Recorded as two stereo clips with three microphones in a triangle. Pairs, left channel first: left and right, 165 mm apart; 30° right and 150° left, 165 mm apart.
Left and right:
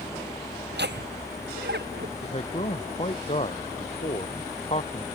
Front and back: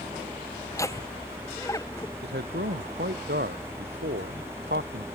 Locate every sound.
0.7 s laughter: 105° right; by 2.1 s 100° right
2.2 s a man speaking: 140° left